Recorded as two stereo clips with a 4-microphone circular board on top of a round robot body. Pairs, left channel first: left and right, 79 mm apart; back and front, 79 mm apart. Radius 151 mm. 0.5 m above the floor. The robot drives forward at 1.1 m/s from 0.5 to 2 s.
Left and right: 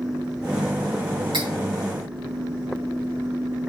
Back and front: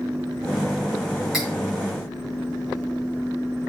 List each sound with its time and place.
1.3 s cutlery clinking: 90° right, 5 m